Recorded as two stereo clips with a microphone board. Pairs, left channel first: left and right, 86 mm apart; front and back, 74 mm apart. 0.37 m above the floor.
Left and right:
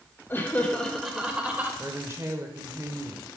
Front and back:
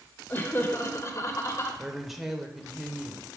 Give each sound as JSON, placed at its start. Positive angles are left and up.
{"t": 0.3, "sound": "laughter", "azimuth_deg": 40, "distance_m": 1.0}
{"t": 1.8, "sound": "a woman speaking", "azimuth_deg": -95, "distance_m": 0.9}